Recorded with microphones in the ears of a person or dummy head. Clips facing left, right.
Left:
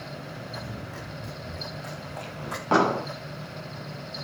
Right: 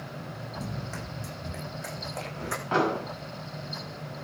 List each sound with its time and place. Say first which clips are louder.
0.6 s running footsteps: right 1 dB; 45° right (ahead or behind), 6 m; by 2.6 s 30° right (ahead or behind), 7.5 m
2.7 s an explosion: left 4 dB; 60° left (ahead or behind), 5 m